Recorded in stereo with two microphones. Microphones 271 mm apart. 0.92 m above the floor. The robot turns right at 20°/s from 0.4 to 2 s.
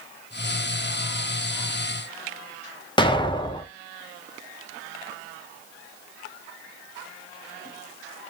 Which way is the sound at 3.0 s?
20° left (ahead or behind).